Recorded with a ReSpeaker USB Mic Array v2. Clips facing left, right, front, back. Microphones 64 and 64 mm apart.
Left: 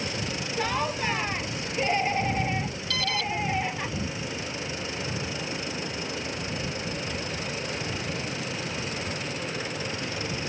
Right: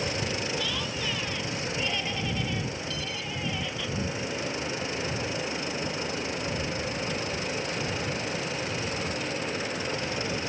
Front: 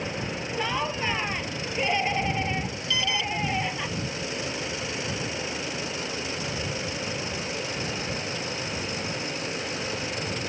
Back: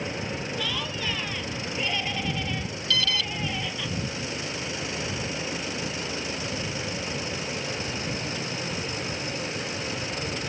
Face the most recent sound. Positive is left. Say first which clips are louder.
# left 6 dB, even
turn(degrees=70)